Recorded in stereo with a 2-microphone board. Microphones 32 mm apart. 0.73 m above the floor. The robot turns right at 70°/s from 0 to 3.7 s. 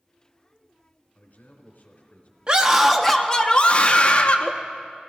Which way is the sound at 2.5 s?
35° right.